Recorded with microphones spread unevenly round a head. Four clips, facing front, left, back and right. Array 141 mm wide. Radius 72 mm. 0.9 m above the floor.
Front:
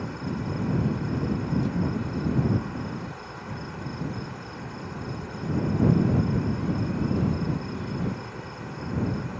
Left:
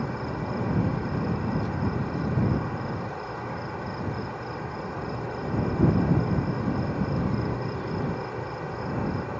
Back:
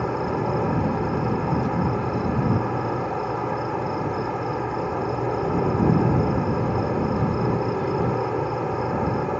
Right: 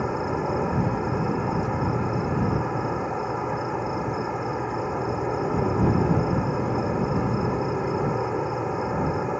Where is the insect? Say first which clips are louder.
Right 5 dB, back 8 dB; 150° right.